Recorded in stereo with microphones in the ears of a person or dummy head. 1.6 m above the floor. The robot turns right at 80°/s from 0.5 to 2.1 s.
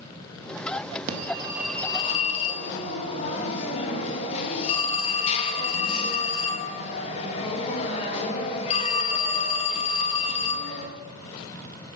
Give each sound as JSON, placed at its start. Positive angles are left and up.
{"t": 1.1, "sound": "a phone ringing", "azimuth_deg": -50, "distance_m": 1.8}